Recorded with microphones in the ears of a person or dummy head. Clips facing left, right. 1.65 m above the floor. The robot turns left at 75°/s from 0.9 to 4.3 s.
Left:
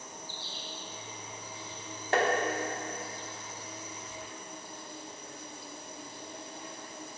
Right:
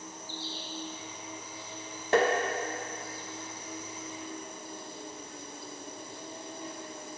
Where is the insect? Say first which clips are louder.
Right 4 dB; 165° left, 1.4 m; by 7.2 s 90° right, 1.4 m.